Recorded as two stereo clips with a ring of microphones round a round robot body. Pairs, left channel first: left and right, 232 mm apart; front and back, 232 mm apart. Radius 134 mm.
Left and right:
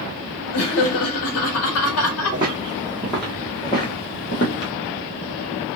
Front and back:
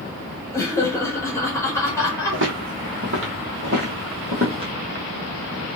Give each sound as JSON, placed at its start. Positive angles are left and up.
{"t": 0.5, "sound": "laughter", "azimuth_deg": 80, "distance_m": 1.3}
{"t": 2.3, "sound": "footsteps", "azimuth_deg": -160, "distance_m": 1.5}